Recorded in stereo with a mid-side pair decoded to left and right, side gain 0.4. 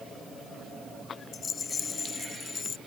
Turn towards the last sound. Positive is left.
turn(degrees=45)